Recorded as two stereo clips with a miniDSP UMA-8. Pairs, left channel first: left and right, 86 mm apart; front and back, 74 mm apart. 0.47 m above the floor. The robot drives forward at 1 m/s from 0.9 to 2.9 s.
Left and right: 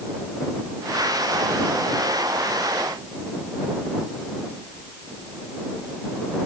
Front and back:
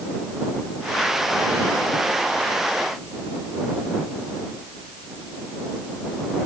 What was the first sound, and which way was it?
Only background noise.